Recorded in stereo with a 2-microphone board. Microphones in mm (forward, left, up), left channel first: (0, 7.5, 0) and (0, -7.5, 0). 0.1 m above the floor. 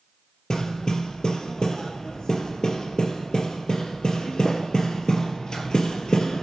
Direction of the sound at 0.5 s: 55° left (ahead or behind).